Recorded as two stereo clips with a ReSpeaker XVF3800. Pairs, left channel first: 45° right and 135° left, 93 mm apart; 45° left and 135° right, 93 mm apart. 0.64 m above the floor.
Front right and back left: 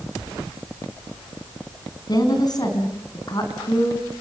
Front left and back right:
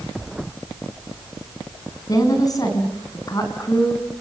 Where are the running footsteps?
No running footsteps in this recording.